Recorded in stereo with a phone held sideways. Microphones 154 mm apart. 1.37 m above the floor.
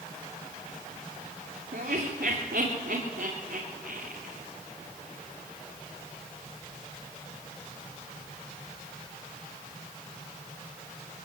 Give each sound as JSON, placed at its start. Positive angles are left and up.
{"t": 1.7, "sound": "laughter", "side_deg": -85, "distance_m": 3.0}